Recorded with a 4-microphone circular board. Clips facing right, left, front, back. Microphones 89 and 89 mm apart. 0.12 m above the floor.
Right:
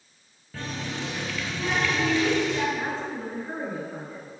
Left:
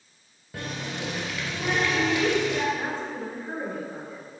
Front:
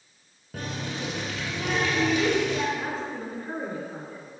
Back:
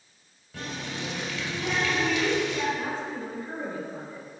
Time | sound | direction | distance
0.5 | a running tap | 20° left | 1.5 m
2.8 | a woman speaking | 10° right | 1.8 m